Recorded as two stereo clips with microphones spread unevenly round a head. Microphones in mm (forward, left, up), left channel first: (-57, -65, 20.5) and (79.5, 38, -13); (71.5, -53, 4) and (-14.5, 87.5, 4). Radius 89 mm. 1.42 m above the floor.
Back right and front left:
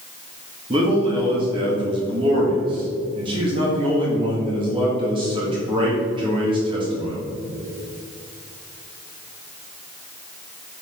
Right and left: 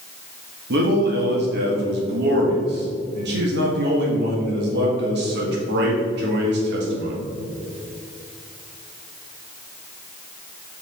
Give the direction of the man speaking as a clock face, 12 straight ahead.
9 o'clock.